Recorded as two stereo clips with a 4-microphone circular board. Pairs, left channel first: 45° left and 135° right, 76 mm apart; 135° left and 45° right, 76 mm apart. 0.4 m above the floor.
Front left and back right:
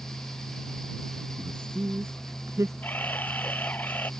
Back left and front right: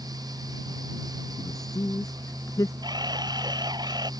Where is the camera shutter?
20° right.